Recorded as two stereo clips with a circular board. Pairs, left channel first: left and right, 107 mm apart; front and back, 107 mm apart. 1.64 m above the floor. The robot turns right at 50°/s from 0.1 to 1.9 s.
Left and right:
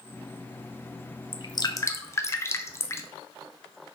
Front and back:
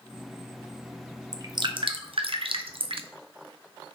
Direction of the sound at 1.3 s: 125° left.